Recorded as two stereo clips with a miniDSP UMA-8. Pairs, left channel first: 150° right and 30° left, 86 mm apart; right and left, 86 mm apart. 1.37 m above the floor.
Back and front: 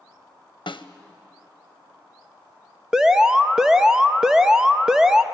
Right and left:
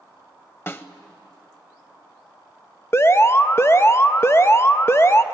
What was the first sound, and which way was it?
A snare drum, 150° right.